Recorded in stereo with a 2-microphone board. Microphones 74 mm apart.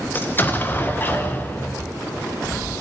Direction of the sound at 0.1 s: 30° left (ahead or behind).